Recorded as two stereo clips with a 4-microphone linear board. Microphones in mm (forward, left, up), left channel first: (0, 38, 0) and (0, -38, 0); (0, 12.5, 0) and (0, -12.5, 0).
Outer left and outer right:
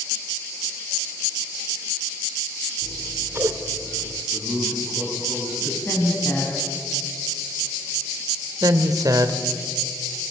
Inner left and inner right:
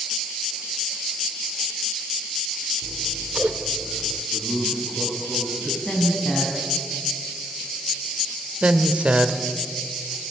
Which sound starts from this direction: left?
A woman speaking, at 5.8 s.